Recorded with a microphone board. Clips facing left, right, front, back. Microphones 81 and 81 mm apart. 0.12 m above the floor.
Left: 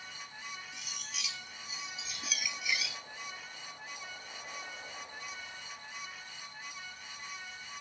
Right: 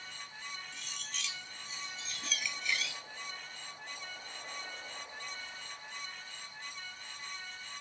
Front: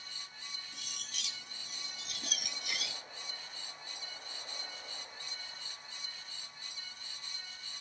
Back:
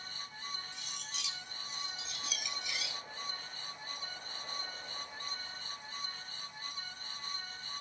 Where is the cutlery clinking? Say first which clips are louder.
Even, back 3 dB; 10° left, 1.7 m.